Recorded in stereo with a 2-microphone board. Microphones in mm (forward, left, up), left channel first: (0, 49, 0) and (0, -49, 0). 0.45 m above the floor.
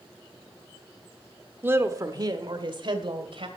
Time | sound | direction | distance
1.6 | a woman speaking | 20° right (ahead or behind) | 1.1 m